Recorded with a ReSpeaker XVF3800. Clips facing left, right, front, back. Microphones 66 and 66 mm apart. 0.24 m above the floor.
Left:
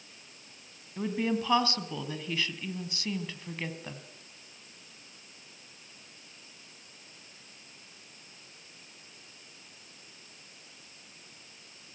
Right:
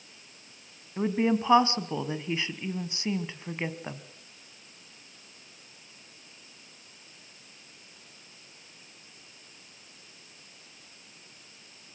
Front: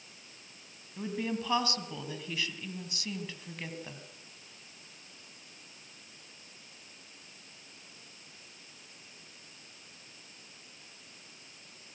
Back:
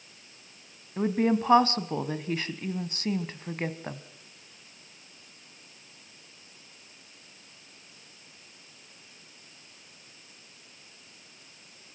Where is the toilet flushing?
No toilet flushing in this recording.